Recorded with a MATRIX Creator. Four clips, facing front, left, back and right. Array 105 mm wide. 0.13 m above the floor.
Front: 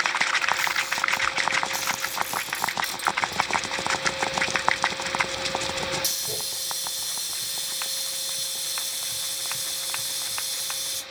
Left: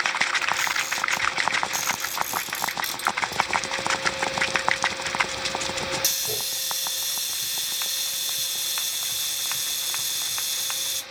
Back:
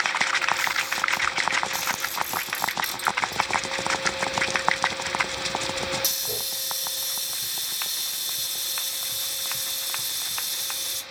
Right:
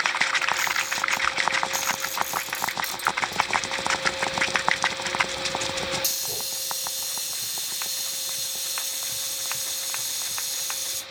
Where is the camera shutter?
95° left, 2.0 m.